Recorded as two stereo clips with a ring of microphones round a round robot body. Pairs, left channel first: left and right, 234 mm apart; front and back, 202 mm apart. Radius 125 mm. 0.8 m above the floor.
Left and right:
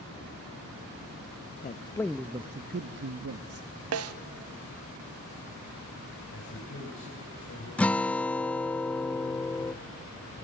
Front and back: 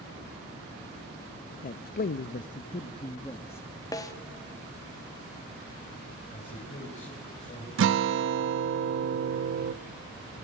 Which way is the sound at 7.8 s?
175° left.